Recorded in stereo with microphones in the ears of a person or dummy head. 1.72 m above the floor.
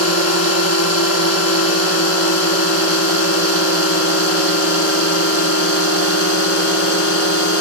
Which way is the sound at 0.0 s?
80° left.